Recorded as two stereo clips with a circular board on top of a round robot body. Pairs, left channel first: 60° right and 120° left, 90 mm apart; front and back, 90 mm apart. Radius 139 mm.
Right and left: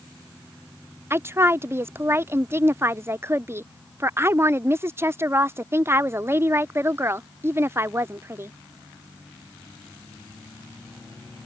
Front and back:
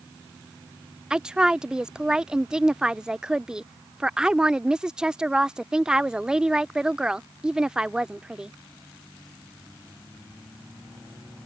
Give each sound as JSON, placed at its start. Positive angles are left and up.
{"t": 1.1, "sound": "a woman speaking", "azimuth_deg": 110}